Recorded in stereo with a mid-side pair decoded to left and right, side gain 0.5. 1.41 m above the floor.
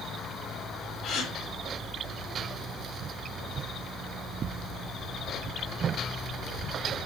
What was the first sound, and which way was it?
A gasp, 65° left.